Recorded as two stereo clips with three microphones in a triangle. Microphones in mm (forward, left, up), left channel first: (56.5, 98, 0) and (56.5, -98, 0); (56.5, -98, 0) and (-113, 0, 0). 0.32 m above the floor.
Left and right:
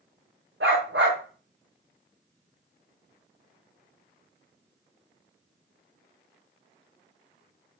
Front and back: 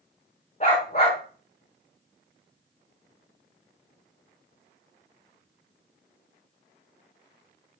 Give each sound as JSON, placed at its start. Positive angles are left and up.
{"t": 0.6, "sound": "a dog barking", "azimuth_deg": -85, "distance_m": 7.0}